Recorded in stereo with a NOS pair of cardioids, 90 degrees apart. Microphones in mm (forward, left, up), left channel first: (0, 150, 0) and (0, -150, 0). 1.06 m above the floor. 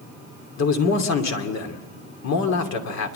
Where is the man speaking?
60° left, 2.5 m.